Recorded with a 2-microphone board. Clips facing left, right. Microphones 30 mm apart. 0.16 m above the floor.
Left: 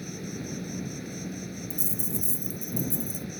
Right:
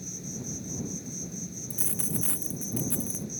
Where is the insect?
40° left (ahead or behind).